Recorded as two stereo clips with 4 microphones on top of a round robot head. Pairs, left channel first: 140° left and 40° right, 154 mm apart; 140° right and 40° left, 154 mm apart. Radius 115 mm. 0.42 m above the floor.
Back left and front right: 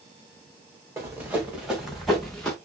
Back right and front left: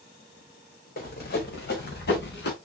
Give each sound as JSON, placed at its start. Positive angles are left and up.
{"t": 1.0, "sound": "running footsteps", "azimuth_deg": -110, "distance_m": 2.5}